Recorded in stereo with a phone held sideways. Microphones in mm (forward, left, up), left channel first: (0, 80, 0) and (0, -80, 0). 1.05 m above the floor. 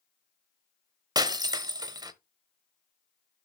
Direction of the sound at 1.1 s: 25° right (ahead or behind).